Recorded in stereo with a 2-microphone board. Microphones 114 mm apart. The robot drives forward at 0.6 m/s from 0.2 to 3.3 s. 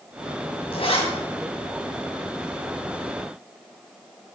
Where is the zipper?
60° left (ahead or behind), 3 m.